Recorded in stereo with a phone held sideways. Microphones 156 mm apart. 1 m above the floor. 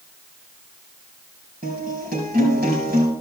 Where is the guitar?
75° right (ahead or behind), 5 m.